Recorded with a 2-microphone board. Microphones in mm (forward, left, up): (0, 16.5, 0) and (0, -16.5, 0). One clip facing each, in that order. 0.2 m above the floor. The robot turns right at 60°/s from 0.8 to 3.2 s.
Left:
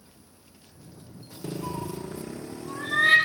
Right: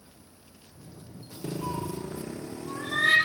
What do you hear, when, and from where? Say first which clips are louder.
1.6 s a cat meowing: right 1 dB; 60° right (ahead or behind), 2.5 m; by 3.2 s 30° left (ahead or behind), 2.5 m